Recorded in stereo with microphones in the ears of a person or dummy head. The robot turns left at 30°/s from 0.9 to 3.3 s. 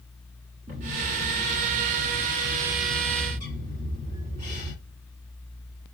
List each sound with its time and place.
0.7 s a bird: 145° right, 1.3 m; by 4.7 s 145° left, 1.3 m